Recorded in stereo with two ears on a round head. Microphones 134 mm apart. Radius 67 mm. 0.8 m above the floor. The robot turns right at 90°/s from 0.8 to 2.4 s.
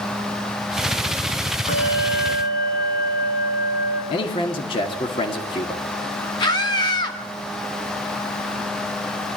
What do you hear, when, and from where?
1.7 s a bell: 50° left, 8 m; by 4.0 s 115° left, 8 m
4.1 s a man speaking: 35° left (ahead or behind), 2.5 m
6.4 s a scream: 30° left (ahead or behind), 3.5 m